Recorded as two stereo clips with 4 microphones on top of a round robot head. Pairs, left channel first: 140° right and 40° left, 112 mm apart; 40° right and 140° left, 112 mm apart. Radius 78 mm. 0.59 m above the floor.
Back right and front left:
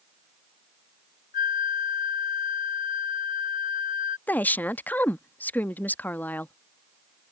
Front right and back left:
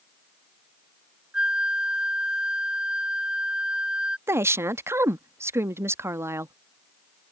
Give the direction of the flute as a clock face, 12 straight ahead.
5 o'clock.